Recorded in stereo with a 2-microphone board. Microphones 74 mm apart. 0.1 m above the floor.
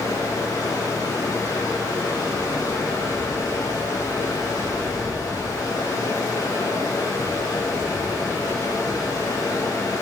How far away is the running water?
About 5 m.